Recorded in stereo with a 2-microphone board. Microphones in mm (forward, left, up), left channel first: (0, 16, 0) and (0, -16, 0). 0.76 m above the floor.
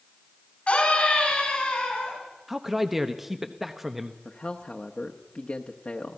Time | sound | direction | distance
0.7 | a scream | 35° left (ahead or behind) | 6.5 m
2.5 | a man speaking | 10° right (ahead or behind) | 1.0 m
4.2 | a man speaking | 45° left (ahead or behind) | 1.1 m